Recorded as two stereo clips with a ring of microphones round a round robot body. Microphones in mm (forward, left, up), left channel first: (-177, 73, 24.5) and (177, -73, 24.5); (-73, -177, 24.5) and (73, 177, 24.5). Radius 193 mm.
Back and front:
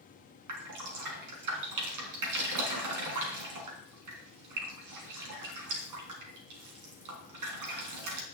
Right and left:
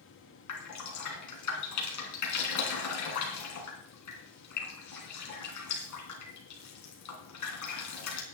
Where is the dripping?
65° right, 4 m.